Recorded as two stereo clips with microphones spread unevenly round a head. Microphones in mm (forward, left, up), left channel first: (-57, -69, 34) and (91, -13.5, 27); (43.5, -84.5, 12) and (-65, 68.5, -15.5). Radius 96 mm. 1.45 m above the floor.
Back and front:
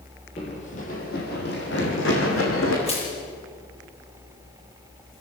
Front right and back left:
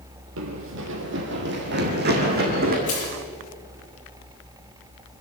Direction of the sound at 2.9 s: 105° right.